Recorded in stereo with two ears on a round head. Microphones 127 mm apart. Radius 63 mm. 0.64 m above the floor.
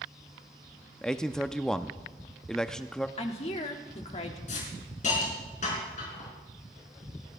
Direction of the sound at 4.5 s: 55° left (ahead or behind).